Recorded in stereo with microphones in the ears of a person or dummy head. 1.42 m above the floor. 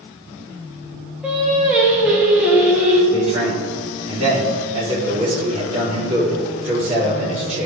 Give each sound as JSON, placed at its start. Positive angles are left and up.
{"t": 1.2, "sound": "singing", "side_deg": -5, "distance_m": 1.4}
{"t": 3.1, "sound": "a man speaking", "side_deg": -40, "distance_m": 3.0}